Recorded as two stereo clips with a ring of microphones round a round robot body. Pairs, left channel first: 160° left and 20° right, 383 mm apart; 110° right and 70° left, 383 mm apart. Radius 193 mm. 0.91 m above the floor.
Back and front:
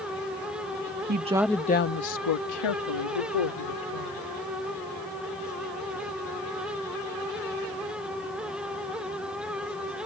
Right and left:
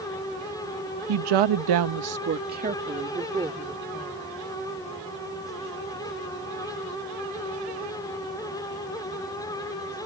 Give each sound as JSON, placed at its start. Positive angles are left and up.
{"t": 1.1, "sound": "a woman speaking", "azimuth_deg": 40}